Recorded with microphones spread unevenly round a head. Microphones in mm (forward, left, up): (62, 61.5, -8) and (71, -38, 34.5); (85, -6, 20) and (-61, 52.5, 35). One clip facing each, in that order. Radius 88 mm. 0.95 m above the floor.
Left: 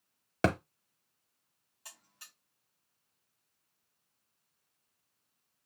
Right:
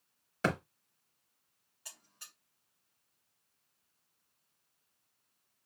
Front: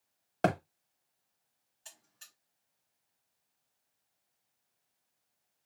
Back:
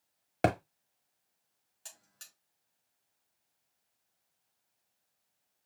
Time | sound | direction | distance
0.4 | a thud | 95° left | 0.9 m
1.9 | a buzzer | 160° left | 4 m